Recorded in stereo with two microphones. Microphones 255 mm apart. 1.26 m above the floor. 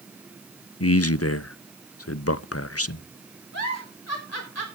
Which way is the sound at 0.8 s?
65° left (ahead or behind).